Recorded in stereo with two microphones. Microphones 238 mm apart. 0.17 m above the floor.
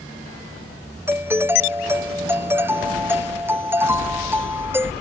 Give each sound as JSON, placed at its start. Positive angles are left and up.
{"t": 1.1, "sound": "a doorbell", "side_deg": -10}